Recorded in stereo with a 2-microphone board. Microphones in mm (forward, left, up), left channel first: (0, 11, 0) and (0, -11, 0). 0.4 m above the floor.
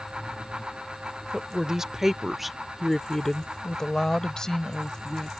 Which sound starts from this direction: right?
A woman speaking, at 1.3 s.